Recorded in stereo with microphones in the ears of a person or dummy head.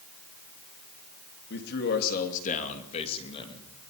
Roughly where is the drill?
No drill in this recording.